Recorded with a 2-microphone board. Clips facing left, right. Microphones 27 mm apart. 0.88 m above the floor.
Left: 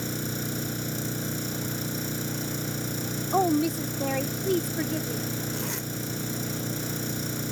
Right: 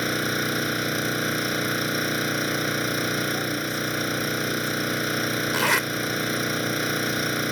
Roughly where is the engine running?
Right.